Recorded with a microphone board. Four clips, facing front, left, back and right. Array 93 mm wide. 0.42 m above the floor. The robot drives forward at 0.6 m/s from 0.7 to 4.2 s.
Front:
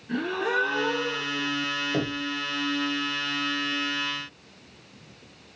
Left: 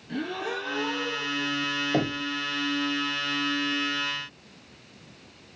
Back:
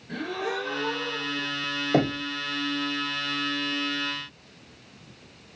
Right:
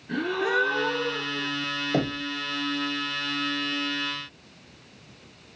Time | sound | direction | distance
0.1 | a gasp | 55° right | 2.5 m
1.9 | knocking | 170° right | 1.5 m